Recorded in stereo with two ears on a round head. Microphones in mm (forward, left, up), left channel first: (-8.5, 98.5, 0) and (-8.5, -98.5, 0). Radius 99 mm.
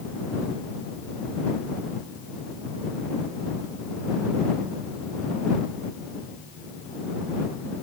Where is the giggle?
No giggle in this recording.